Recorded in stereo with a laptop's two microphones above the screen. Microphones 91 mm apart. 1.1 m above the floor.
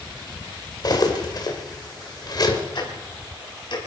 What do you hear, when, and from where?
0.8 s cutlery clinking: 50° left (ahead or behind), 2 m
2.8 s ticking: 55° left (ahead or behind), 4 m